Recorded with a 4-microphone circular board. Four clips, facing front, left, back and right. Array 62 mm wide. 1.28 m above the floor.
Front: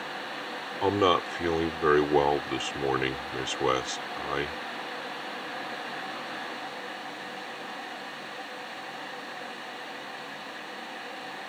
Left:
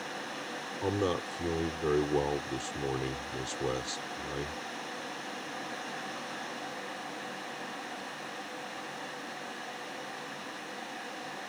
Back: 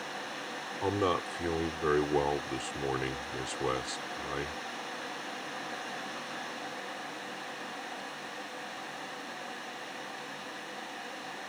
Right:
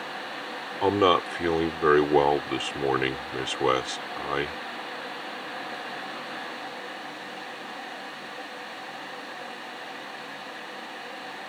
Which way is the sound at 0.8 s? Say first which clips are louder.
Right 10 dB, front 6 dB; 60° right.